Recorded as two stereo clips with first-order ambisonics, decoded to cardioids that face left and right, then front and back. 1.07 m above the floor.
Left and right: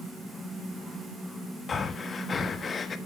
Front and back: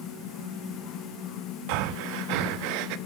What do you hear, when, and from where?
1.7 s breathing: 160° left, 0.7 m